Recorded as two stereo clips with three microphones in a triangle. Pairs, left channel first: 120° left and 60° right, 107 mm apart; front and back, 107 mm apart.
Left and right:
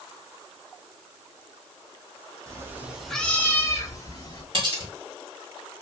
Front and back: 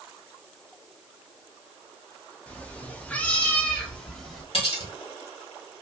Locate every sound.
2.5 s a cat meowing: 65° right, 0.6 m; by 4.4 s 85° left, 1.0 m
4.5 s cutlery clinking: 25° right, 1.6 m